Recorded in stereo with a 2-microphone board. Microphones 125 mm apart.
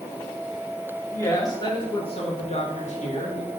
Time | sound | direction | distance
1.1 | a woman speaking | 25° left (ahead or behind) | 1.8 m